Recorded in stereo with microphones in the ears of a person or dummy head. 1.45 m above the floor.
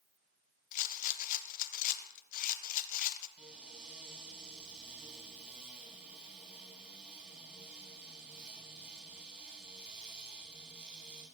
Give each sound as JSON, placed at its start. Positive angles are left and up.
{"t": 0.7, "sound": "a rattle", "side_deg": 50, "distance_m": 1.1}
{"t": 3.4, "sound": "a cupboard door", "side_deg": 0, "distance_m": 8.5}